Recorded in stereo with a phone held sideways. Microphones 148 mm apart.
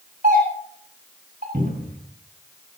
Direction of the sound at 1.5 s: 70° right (ahead or behind).